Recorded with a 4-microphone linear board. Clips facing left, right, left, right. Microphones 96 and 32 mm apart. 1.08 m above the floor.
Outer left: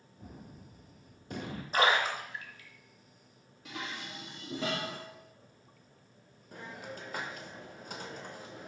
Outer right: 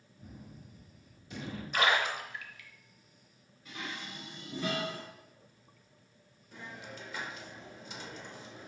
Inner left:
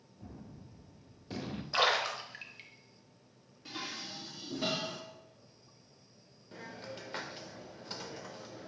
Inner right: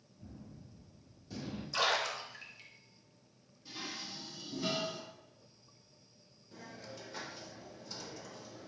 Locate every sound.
0.2 s a gunshot: 50° left (ahead or behind), 0.6 m
1.7 s a splash: 35° left (ahead or behind), 0.6 m
3.6 s dishes clattering: 85° left, 1.1 m
6.5 s a hiss: 45° left (ahead or behind), 0.6 m